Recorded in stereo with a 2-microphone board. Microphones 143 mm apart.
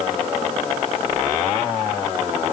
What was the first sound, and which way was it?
Only background noise.